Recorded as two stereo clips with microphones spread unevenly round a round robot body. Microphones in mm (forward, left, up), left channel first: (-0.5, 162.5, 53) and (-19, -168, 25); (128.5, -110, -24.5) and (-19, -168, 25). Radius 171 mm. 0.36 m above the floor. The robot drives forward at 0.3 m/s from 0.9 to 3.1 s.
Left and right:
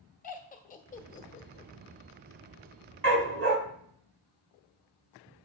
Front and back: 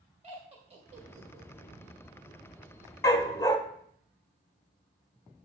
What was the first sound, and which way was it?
Laughter, 140° left.